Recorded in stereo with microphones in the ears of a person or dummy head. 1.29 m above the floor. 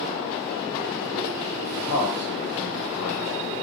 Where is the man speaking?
60° left (ahead or behind), 1.0 m.